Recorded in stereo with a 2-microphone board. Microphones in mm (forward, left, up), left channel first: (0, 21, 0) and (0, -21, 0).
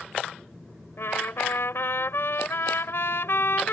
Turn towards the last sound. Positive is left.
turn(degrees=65)  # may be behind; listen again after turning